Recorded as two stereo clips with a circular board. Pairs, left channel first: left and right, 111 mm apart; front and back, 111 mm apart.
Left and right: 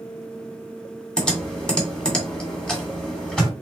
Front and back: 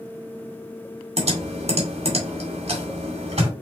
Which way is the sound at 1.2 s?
170° left.